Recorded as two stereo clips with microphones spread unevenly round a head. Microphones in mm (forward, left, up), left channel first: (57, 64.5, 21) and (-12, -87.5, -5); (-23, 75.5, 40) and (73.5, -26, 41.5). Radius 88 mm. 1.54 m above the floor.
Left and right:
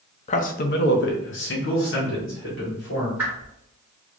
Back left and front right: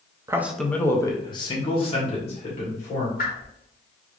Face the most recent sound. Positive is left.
turn(degrees=160)